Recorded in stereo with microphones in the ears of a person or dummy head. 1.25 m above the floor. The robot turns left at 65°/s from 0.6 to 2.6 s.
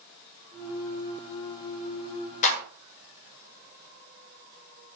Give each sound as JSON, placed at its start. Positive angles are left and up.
{"t": 2.4, "sound": "a clap", "side_deg": 45, "distance_m": 5.0}